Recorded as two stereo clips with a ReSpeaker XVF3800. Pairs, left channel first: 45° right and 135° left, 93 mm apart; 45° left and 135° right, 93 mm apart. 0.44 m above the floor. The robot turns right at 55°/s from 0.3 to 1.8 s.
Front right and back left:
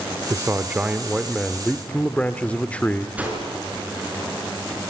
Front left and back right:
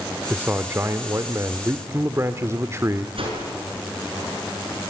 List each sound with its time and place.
0.3 s a man speaking: 170° left, 0.9 m; by 3.1 s 110° right, 0.9 m
3.2 s a whoosh: 150° right, 6 m